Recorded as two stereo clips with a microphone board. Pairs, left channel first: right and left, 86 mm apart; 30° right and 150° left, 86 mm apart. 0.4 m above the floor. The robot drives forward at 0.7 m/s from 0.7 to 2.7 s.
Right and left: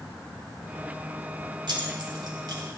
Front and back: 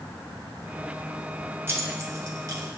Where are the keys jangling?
90° left, 1.6 m; by 2.8 s 120° left, 1.8 m.